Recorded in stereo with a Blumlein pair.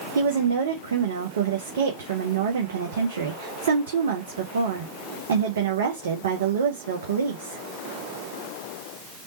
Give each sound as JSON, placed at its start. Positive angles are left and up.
{"t": 0.1, "sound": "a woman speaking", "azimuth_deg": -60, "distance_m": 0.8}